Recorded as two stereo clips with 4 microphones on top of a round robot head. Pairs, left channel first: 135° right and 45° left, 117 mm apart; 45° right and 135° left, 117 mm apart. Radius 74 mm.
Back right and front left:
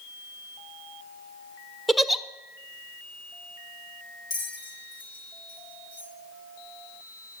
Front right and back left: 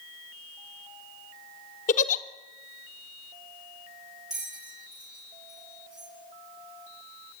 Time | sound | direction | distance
1.9 | a giggle | 45° right | 0.8 m
4.3 | a bell | 140° right | 5 m